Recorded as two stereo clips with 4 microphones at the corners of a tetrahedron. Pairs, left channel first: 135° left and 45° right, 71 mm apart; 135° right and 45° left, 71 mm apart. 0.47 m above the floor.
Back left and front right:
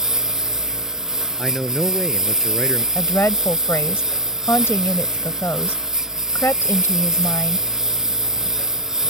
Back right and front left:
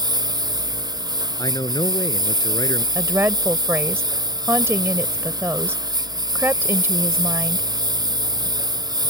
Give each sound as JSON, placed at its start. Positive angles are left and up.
{"t": 0.0, "sound": "a lawn mower", "azimuth_deg": 40}
{"t": 1.4, "sound": "a man speaking", "azimuth_deg": -140}
{"t": 3.0, "sound": "a woman speaking", "azimuth_deg": 90}